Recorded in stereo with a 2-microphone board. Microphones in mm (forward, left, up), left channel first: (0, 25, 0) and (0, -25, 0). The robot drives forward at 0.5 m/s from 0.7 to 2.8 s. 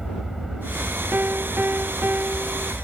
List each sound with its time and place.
0.0 s an aircraft: 5° right (ahead or behind); by 2.8 s centre (ahead or behind)
1.1 s a piano: 45° right (ahead or behind); by 2.7 s 40° right (ahead or behind)